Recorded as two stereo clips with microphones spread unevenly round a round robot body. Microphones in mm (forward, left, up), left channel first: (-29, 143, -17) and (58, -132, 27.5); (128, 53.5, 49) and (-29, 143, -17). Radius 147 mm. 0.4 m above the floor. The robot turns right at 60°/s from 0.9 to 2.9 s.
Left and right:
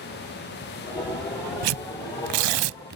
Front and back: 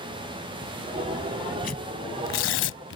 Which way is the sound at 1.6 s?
90° right.